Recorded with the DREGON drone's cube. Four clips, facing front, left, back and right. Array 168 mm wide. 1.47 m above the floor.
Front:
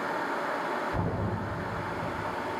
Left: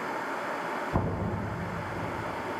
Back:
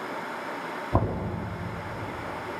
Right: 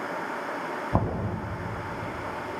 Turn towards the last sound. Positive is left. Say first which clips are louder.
# right 5 dB, back 4 dB
turn(degrees=-135)